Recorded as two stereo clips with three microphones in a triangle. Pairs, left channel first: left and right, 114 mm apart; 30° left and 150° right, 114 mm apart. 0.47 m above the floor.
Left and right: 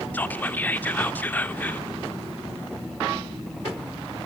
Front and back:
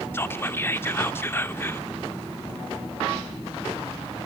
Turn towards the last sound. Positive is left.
turn(degrees=45)